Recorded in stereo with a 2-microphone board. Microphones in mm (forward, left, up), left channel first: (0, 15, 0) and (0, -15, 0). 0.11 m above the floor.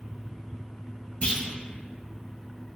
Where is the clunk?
35° left (ahead or behind), 1.2 m.